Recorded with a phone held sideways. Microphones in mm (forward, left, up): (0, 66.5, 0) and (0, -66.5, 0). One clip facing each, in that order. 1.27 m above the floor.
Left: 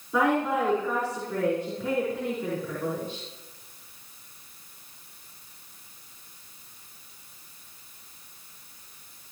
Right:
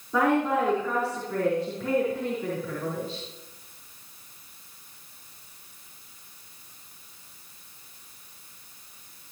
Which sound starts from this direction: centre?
A woman speaking, at 0.1 s.